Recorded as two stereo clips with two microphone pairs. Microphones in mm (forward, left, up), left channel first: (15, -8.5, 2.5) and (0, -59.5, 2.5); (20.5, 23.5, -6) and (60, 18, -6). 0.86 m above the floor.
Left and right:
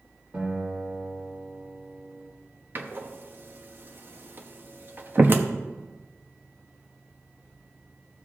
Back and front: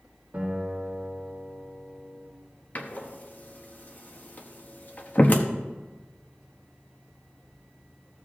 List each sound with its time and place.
0.3 s a guitar: 60° right, 4 m
2.8 s a door slam: 150° right, 0.8 m